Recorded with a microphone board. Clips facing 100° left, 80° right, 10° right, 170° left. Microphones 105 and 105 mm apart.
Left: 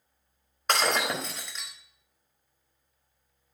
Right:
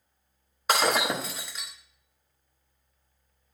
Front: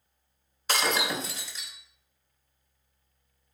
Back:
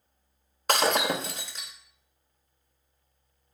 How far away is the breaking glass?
About 0.9 m.